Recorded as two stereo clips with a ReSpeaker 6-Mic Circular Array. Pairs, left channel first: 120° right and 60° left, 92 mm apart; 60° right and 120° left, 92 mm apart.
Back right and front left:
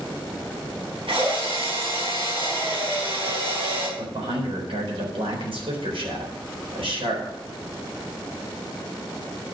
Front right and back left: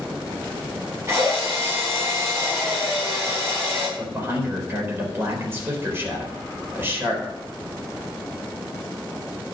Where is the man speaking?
55° left, 4 m.